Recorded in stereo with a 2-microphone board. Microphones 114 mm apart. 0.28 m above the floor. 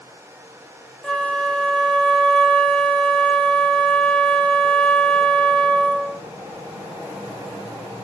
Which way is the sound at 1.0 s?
10° left (ahead or behind).